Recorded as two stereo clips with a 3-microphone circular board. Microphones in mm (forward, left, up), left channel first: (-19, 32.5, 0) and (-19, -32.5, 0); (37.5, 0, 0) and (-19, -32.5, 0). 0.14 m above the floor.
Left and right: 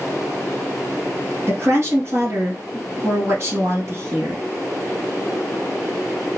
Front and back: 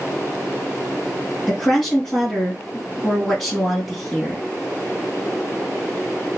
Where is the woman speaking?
50° right, 3 m.